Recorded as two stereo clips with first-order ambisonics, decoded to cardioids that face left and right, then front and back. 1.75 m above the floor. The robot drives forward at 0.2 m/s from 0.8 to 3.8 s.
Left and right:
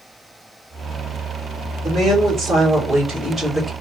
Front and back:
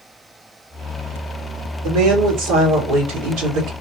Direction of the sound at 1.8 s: 165° right.